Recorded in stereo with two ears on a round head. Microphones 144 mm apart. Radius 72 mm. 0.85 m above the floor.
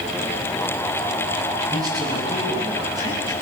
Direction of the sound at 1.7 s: 25° right (ahead or behind).